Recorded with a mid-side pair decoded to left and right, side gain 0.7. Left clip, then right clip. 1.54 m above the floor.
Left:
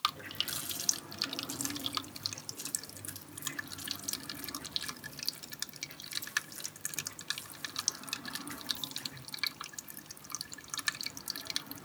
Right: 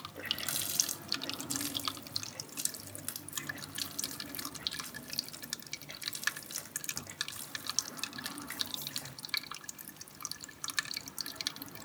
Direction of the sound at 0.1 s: 30° right.